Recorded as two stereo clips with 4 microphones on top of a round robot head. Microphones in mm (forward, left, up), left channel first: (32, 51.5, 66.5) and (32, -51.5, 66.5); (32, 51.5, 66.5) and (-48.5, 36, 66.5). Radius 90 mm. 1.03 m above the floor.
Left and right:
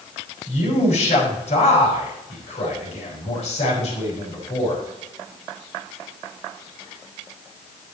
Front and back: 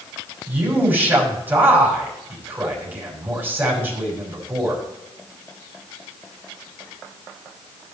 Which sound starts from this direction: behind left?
A man speaking, at 0.5 s.